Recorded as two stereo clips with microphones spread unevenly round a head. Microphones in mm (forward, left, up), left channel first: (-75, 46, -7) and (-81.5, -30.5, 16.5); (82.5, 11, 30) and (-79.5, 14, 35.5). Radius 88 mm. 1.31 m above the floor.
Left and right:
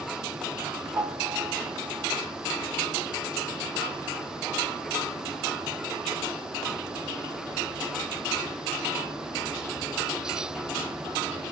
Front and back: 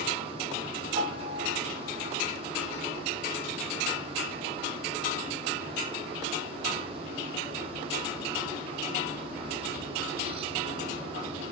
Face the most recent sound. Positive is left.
turn(degrees=-130)